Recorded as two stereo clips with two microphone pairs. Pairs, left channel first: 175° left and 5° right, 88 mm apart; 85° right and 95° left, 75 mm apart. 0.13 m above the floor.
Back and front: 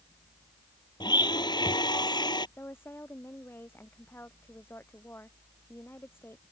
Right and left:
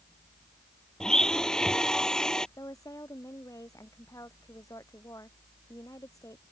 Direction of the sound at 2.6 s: 125° right.